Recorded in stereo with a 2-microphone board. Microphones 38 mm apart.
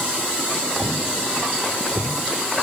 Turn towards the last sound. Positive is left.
No sound to turn to.